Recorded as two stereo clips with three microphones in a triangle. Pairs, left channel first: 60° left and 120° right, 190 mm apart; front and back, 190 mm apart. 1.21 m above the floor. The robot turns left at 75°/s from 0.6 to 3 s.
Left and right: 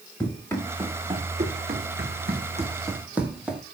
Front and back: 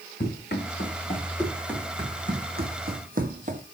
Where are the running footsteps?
15° right, 5.5 m; by 3.6 s 155° left, 1.7 m.